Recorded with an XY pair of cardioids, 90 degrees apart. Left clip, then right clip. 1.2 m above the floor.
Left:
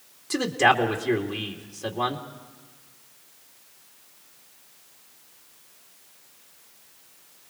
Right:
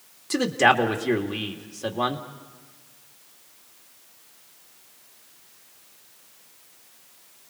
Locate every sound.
0.3 s a man speaking: 15° right, 2.5 m